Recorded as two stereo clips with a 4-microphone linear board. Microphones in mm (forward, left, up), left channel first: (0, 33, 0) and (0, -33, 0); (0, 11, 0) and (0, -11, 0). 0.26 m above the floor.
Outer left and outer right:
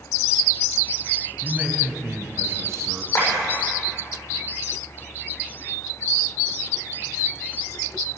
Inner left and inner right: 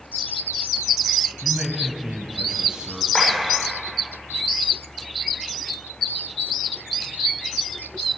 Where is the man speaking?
10° right (ahead or behind), 1.7 m; by 3.0 s 50° right (ahead or behind), 2.5 m.